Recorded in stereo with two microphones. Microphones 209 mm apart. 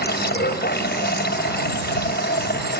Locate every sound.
0.0 s running water: 50° left (ahead or behind)